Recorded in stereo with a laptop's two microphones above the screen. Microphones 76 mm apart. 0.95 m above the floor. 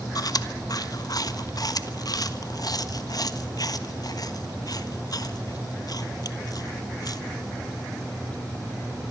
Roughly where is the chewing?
Left.